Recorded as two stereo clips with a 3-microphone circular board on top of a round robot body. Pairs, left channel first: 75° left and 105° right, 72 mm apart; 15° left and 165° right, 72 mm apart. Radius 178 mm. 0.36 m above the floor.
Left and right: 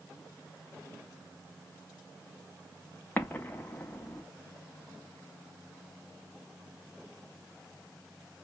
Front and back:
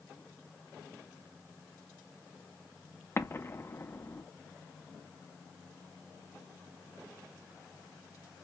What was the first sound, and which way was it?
An explosion, 30° left.